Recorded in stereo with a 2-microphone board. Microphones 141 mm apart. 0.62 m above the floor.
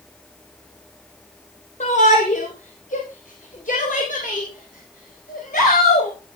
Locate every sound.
1.8 s a shout: 60° left (ahead or behind), 3.5 m; by 6.1 s 75° left (ahead or behind), 5 m